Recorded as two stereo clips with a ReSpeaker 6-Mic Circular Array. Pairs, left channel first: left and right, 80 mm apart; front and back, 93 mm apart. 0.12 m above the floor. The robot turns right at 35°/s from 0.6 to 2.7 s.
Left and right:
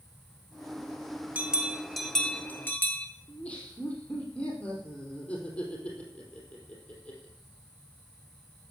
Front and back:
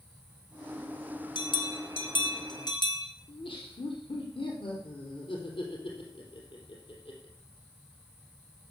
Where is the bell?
20° right, 1.4 m; by 3.1 s 30° left, 1.4 m.